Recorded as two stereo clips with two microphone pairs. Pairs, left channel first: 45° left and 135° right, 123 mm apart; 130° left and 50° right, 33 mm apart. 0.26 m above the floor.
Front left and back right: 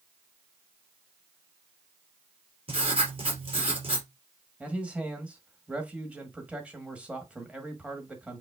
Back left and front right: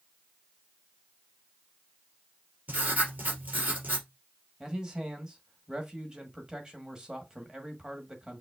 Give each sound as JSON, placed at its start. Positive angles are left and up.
{"t": 2.7, "sound": "writing", "azimuth_deg": -95, "distance_m": 2.5}
{"t": 4.6, "sound": "a man speaking", "azimuth_deg": -75, "distance_m": 1.3}